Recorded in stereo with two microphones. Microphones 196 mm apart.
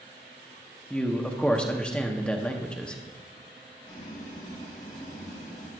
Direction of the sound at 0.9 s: 5° left (ahead or behind).